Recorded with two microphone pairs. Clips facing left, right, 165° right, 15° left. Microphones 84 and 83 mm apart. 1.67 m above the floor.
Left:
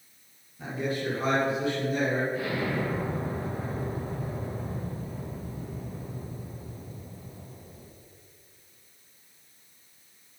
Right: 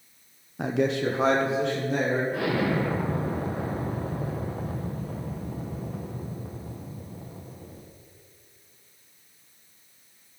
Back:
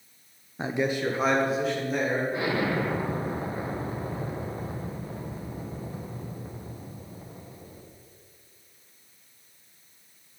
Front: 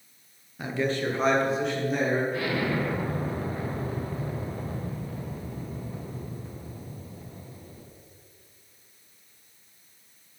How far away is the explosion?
About 1.3 m.